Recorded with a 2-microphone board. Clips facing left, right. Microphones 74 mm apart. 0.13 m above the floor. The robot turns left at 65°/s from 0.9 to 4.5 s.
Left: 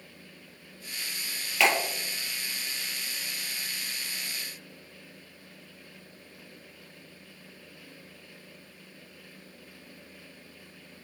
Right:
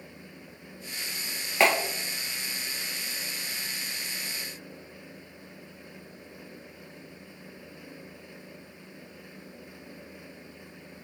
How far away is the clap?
About 2 m.